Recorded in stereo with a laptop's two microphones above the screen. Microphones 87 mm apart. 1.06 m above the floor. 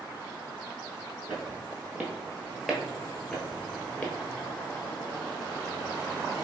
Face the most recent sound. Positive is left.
turn(degrees=15)  # may be behind; listen again after turning